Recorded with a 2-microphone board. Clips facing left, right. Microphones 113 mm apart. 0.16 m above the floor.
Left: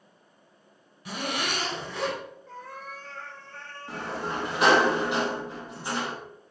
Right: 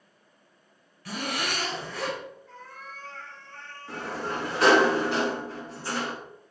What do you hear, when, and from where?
1.1 s a zipper: 20° left (ahead or behind), 1.7 m
2.5 s a cat meowing: 80° left, 2.5 m
3.9 s a sliding door: 15° left (ahead or behind), 1.5 m